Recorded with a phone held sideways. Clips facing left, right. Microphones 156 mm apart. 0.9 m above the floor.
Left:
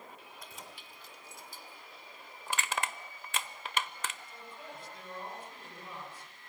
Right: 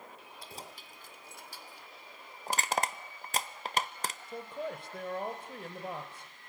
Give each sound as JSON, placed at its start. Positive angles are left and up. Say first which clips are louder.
{"t": 0.4, "sound": "keys jangling", "louder": "right 5 dB", "side_deg": -30, "distance_m": 2.5}
{"t": 2.5, "sound": "crushing", "louder": "right 4 dB", "side_deg": -40, "distance_m": 0.9}
{"t": 4.3, "sound": "a man speaking", "louder": "right 10 dB", "side_deg": -70, "distance_m": 3.5}